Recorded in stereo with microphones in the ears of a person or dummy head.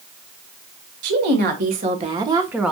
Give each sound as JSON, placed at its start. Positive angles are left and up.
{"t": 1.0, "sound": "a woman speaking", "side_deg": -65, "distance_m": 1.5}